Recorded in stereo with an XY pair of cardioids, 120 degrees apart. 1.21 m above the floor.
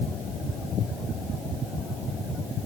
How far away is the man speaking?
No man speaking in this recording.